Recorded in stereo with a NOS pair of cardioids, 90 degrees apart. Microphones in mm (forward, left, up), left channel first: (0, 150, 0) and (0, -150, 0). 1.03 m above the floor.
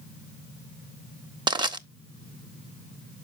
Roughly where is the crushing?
Ahead.